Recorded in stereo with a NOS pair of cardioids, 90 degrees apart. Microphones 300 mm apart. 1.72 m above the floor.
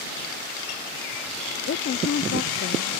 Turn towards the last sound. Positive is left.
turn(degrees=40)